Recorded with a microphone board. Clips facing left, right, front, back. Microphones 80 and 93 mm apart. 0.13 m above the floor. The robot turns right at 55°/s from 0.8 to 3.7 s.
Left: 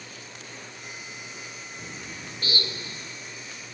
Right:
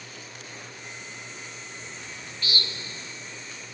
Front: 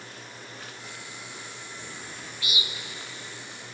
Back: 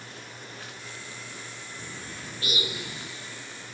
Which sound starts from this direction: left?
A bird, at 1.8 s.